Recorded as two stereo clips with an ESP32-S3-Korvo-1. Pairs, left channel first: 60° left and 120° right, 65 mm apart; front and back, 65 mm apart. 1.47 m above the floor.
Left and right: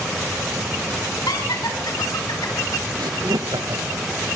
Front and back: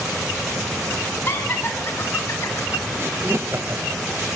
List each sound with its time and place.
1.3 s laughter: 55° left, 7 m; by 2.9 s 45° left, 5 m
3.0 s laughter: 125° right, 1.3 m